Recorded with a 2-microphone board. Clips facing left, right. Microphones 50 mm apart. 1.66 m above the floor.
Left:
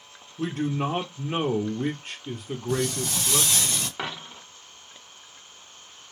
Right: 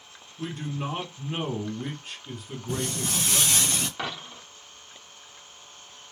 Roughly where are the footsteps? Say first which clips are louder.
Left 3 dB; right.